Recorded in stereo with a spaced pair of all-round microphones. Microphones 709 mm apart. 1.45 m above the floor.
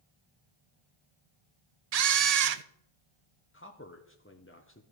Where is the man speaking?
15° left (ahead or behind), 1.0 m.